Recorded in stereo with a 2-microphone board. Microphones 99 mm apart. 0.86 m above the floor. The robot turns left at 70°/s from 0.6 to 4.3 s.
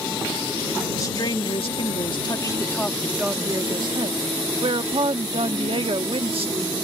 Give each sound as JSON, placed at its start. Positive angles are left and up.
{"t": 0.9, "sound": "a woman speaking", "azimuth_deg": 145}